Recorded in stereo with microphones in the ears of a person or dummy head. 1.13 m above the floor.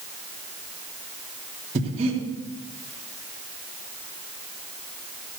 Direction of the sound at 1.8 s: 40° right (ahead or behind).